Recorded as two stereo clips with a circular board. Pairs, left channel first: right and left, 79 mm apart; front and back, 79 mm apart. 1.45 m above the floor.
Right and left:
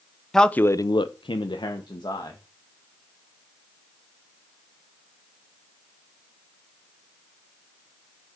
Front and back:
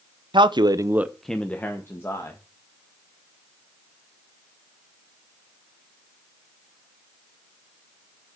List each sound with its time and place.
0.3 s a man speaking: 175° right, 0.9 m; by 2.4 s 55° right, 2 m